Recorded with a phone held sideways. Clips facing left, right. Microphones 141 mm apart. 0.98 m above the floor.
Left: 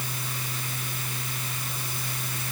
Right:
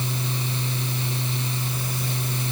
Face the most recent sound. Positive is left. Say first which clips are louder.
# right 7 dB
turn(degrees=-25)  # may be behind; listen again after turning